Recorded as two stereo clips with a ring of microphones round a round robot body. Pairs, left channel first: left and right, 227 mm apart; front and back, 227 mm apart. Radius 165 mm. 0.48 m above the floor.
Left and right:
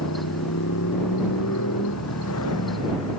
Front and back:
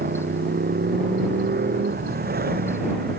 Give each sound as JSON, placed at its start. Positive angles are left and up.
{"t": 0.0, "sound": "a motorcycle", "azimuth_deg": 135}